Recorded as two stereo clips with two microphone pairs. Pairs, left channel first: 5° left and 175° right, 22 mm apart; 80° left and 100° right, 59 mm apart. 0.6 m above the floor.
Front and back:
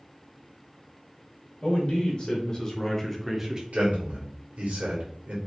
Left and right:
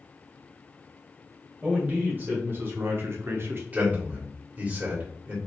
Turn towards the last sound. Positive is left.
turn(degrees=-165)